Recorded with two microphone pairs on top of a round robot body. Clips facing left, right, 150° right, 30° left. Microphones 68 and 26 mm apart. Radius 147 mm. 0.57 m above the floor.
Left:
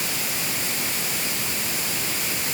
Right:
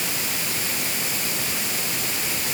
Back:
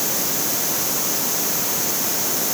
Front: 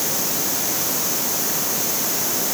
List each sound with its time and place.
Only background noise.